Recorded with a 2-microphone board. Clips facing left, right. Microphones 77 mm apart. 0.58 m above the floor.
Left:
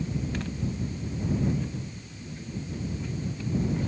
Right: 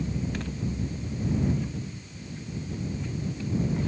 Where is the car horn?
No car horn in this recording.